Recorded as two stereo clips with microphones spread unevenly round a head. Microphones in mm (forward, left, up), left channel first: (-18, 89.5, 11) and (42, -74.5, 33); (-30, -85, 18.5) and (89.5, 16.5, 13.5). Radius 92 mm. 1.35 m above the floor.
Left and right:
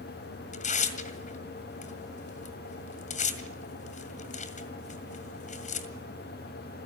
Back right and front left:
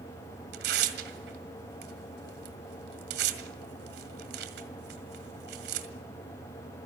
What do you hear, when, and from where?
0.5 s tearing paper: 60° left, 2.0 m